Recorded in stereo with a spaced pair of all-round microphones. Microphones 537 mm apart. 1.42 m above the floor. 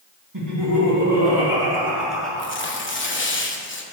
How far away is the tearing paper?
About 0.9 m.